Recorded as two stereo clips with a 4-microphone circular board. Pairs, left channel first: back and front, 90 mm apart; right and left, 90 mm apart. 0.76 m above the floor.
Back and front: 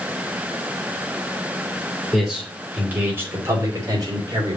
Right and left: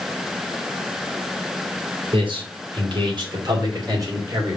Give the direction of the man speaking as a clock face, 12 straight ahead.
9 o'clock.